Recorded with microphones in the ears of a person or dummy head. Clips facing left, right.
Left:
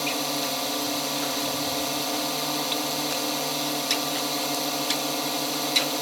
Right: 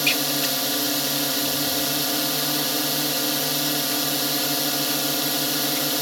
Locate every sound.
0.0 s a drone: 15° right (ahead or behind)